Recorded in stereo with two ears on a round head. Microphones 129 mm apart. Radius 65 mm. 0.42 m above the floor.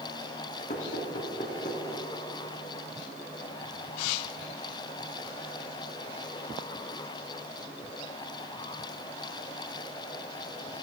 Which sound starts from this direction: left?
Knocking, at 0.7 s.